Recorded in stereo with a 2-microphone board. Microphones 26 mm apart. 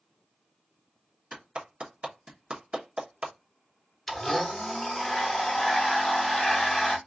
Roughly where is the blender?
Centre.